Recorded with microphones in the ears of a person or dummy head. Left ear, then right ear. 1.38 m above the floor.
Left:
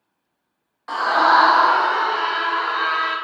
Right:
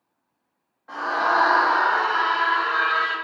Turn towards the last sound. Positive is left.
turn(degrees=-20)  # may be behind; listen again after turning